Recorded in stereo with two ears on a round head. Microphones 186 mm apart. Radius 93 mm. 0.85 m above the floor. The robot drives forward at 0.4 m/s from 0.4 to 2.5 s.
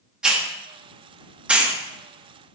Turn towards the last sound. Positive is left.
turn(degrees=-10)  # may be behind; listen again after turning